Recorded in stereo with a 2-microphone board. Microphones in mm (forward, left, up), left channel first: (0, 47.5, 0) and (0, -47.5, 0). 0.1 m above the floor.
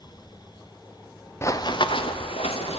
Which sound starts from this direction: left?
Running footsteps, at 1.4 s.